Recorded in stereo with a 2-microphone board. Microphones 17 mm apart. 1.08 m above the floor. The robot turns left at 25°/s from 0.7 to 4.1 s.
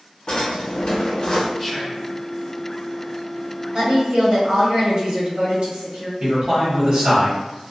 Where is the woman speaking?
75° right (ahead or behind), 1.3 m.